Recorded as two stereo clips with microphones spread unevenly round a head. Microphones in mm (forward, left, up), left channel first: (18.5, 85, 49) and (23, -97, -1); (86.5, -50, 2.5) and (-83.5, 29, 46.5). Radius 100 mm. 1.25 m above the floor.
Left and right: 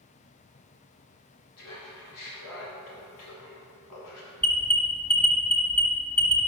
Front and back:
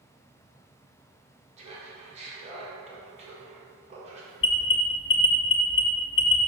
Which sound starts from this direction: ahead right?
An alarm, at 4.4 s.